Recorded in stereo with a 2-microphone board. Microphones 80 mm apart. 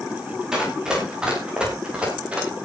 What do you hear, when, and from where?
0.5 s running footsteps: 10° right (ahead or behind), 8 m; by 2.5 s 15° right (ahead or behind), 9.5 m